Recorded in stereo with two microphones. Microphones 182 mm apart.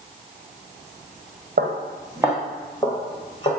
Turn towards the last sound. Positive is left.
turn(degrees=30)  # may be behind; listen again after turning